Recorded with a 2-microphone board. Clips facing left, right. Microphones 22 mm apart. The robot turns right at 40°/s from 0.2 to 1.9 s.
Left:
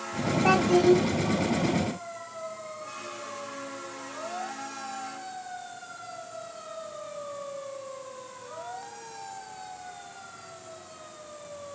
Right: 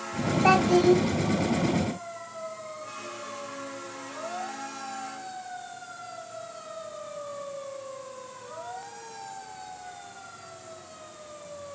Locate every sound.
0.4 s a child speaking: 35° right (ahead or behind), 1.2 m; by 1.0 s 20° right (ahead or behind), 1.2 m